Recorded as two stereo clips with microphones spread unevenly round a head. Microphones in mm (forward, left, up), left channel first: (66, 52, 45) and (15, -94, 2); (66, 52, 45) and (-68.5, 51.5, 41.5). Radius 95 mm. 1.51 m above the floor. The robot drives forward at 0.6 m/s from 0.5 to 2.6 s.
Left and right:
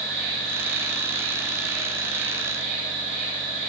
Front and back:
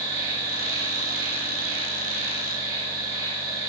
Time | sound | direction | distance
0.0 | an insect | 160° right | 3.5 m